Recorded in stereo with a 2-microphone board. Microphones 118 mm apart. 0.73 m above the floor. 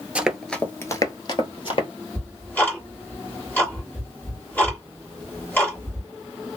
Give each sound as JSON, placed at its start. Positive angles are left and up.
{"t": 0.1, "sound": "running footsteps", "side_deg": -10, "distance_m": 0.8}
{"t": 2.1, "sound": "ticking", "side_deg": 15, "distance_m": 1.5}